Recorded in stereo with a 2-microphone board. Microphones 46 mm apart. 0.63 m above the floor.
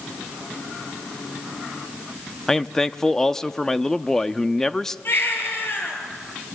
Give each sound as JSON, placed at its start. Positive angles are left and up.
{"t": 2.5, "sound": "a man speaking", "side_deg": 10, "distance_m": 0.7}
{"t": 5.0, "sound": "a baby crying", "side_deg": 50, "distance_m": 5.0}